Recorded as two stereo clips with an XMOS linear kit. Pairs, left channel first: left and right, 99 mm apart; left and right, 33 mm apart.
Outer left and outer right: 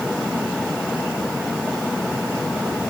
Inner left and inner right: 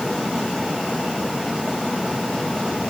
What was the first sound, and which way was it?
Only background noise.